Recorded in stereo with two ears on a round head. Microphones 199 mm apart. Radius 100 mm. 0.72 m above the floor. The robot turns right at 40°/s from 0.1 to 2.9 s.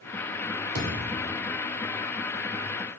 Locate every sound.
0.8 s a thud: 50° right (ahead or behind), 0.9 m; by 1.3 s 30° right (ahead or behind), 0.9 m